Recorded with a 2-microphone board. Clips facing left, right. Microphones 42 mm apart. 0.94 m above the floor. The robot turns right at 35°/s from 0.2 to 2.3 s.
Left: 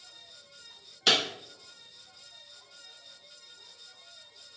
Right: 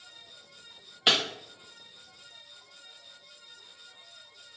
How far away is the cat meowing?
No cat meowing in this recording.